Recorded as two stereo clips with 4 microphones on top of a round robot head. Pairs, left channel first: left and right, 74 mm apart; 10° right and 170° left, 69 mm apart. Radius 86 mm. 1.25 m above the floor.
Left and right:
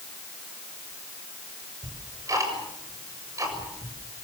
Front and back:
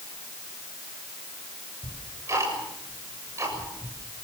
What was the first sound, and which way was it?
Ticking, 135° right.